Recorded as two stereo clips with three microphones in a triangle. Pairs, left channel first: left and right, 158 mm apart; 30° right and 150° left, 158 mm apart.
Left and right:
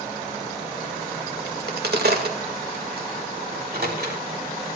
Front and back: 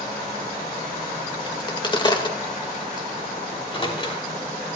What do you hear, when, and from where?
1.5 s a crack: 90° right, 2 m
3.5 s a microwave: 85° right, 3 m